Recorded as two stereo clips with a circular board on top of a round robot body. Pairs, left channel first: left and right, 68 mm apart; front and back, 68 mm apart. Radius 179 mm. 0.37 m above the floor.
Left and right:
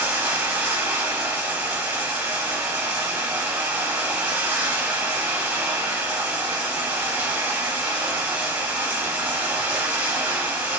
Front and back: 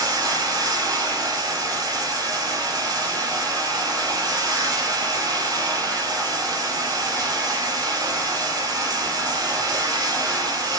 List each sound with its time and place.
0.0 s running water: 155° right, 3.5 m